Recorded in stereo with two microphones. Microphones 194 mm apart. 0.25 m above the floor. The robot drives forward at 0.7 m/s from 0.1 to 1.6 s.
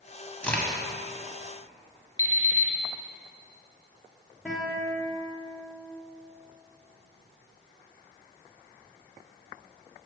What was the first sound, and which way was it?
A crack, 5° left (ahead or behind).